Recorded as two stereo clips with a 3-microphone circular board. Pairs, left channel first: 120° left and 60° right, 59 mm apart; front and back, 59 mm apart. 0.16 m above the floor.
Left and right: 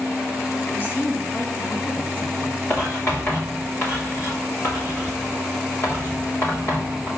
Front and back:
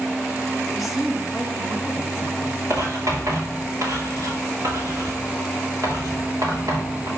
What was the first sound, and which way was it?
A woman speaking, 85° left.